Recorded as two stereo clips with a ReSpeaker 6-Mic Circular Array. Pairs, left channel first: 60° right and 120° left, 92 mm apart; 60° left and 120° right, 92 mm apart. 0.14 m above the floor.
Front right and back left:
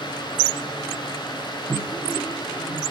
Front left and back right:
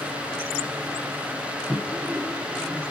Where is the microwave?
165° left, 1.0 m.